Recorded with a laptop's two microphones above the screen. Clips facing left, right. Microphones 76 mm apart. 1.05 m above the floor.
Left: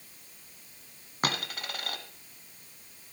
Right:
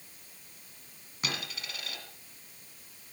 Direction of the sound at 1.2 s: 50° left (ahead or behind).